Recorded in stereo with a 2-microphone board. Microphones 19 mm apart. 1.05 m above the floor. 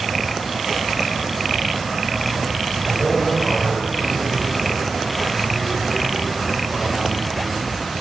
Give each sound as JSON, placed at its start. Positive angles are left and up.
{"t": 2.9, "sound": "a man speaking", "side_deg": 10, "distance_m": 4.5}